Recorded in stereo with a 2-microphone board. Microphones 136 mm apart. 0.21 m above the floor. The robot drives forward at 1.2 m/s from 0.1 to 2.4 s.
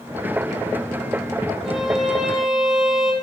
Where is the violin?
Centre (ahead or behind), 6 m.